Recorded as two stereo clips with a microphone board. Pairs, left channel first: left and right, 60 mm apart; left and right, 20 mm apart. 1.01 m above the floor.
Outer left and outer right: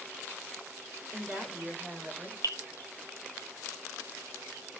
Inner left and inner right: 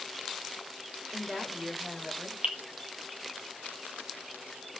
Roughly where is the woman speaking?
Centre.